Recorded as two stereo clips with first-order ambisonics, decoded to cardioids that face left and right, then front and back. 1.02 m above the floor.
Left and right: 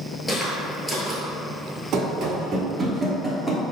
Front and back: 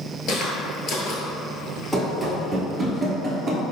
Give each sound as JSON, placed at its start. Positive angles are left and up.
{"t": 0.3, "sound": "footsteps", "azimuth_deg": 15, "distance_m": 1.1}
{"t": 1.9, "sound": "running footsteps", "azimuth_deg": -85, "distance_m": 1.3}